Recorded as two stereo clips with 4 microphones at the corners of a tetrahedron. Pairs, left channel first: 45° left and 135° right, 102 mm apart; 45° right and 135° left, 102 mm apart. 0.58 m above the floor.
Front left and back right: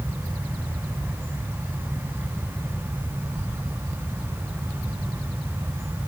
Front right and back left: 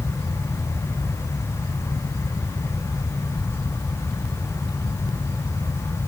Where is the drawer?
I don't hear a drawer.